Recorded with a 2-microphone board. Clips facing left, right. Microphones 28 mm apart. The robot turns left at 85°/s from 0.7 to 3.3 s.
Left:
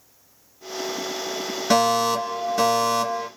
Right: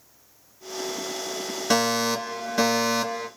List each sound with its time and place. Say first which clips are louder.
1.7 s a fire alarm: left 4 dB; 5° left (ahead or behind), 2.5 m; by 3.3 s 20° right (ahead or behind), 2.5 m